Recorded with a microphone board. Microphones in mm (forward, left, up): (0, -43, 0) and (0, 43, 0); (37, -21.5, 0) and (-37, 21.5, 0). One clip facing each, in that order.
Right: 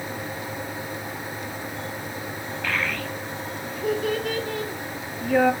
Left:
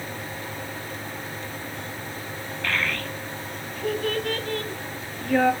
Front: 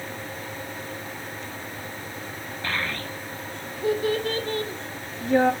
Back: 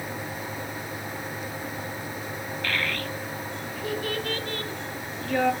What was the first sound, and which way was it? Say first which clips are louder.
A child speaking: even, even; 10° right.